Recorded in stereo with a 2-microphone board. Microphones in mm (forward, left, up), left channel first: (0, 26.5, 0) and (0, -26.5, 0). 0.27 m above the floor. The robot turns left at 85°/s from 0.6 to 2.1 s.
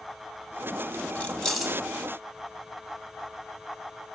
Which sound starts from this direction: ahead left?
Keys jangling, at 1.1 s.